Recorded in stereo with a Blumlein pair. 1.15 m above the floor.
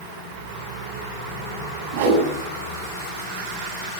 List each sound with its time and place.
1.9 s a whoosh: 50° right, 8 m